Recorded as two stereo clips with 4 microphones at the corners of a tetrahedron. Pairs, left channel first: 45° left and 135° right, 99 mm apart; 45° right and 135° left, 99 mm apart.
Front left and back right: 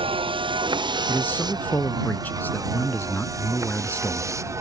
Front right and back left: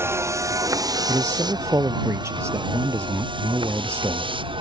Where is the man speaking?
105° left.